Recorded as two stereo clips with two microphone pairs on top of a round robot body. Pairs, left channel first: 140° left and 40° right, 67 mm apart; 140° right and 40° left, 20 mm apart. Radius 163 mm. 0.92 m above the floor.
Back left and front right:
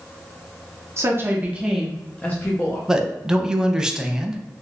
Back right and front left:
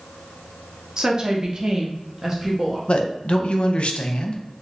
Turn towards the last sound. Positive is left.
turn(degrees=-125)